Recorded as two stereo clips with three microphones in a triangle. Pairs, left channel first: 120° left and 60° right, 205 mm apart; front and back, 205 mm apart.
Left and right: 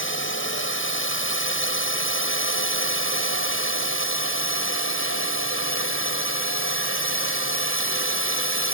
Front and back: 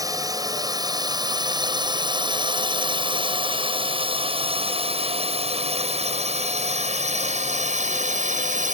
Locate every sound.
0.0 s a drone: 105° left; by 8.7 s 130° left